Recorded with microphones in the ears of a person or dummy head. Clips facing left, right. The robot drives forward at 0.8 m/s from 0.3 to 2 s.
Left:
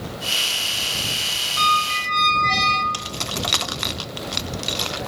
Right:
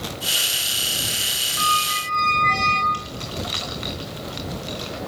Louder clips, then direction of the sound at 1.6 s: Left 2 dB; 65° left (ahead or behind).